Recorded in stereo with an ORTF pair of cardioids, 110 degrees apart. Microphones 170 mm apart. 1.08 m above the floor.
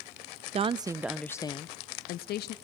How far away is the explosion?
I don't hear an explosion.